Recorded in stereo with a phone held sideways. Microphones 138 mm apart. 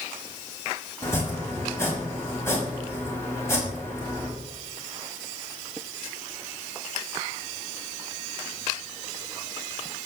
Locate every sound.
1.0 s chopping: 20° left (ahead or behind), 5.5 m